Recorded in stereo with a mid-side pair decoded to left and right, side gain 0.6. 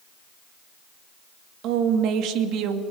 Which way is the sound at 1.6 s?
65° right.